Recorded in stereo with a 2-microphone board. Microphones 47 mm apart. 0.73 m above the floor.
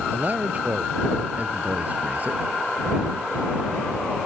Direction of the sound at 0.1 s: 35° right (ahead or behind).